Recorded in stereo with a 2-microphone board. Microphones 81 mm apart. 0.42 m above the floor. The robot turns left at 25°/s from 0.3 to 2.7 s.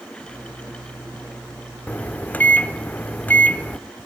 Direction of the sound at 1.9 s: 20° left (ahead or behind).